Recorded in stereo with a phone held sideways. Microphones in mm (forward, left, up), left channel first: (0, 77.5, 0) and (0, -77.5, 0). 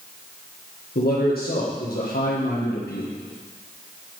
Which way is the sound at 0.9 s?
80° left.